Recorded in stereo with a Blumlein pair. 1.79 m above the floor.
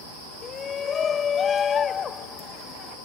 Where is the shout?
20° left.